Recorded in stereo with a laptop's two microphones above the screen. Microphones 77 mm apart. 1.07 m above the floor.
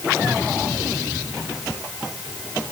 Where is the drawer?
No drawer in this recording.